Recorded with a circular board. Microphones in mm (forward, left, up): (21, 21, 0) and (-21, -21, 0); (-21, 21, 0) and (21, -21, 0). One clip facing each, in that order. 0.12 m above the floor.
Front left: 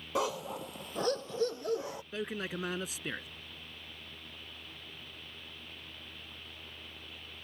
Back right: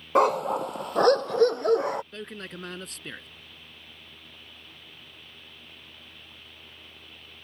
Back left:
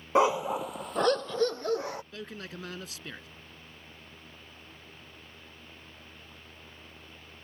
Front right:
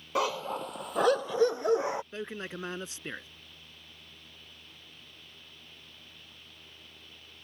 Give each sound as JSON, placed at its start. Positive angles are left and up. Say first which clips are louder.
{"t": 0.1, "sound": "a dog barking", "louder": "back right 12 dB, back left 6 dB", "azimuth_deg": -165}
{"t": 2.1, "sound": "a man speaking", "louder": "front left 2 dB, front right 3 dB", "azimuth_deg": -25}